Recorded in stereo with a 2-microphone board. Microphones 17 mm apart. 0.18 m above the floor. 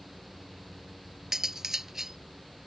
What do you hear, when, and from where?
1.3 s cutlery clinking: 20° right (ahead or behind)